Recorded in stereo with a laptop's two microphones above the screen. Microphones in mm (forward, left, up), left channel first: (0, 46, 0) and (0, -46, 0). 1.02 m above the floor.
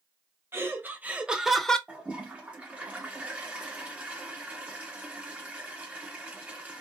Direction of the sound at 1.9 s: 15° right (ahead or behind).